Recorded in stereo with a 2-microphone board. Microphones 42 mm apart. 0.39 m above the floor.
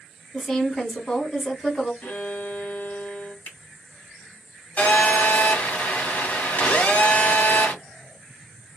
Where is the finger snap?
50° left (ahead or behind), 2 m.